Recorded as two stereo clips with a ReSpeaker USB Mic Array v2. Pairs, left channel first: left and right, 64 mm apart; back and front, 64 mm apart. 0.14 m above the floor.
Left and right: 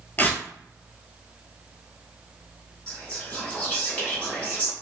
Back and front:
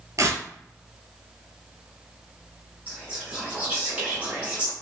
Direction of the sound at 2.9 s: 40° left.